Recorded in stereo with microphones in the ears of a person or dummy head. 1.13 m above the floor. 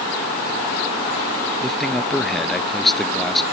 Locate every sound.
1.6 s a man speaking: centre (ahead or behind)